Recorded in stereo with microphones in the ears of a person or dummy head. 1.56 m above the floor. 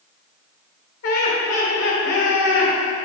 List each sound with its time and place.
1.0 s laughter: 65° left (ahead or behind), 2 m